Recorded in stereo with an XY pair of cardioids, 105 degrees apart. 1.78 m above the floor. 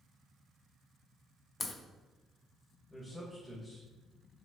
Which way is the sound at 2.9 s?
5° left.